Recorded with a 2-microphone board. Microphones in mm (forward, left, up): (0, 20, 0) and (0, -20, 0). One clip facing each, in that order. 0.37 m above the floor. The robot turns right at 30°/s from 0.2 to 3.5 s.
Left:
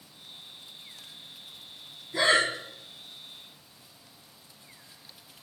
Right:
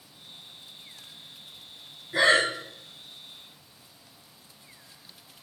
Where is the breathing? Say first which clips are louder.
Right 2 dB; 65° right (ahead or behind), 1.2 m; by 2.5 s 75° right (ahead or behind), 1.2 m.